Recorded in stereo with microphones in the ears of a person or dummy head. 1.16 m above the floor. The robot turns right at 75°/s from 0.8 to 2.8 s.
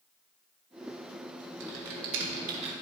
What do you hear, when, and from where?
1.6 s typing on a keyboard: 65° right (ahead or behind), 2 m; by 2.7 s 25° right (ahead or behind), 2 m